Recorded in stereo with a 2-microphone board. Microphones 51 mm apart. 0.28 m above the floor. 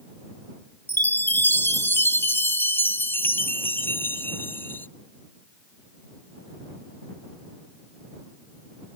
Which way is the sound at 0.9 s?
45° left (ahead or behind).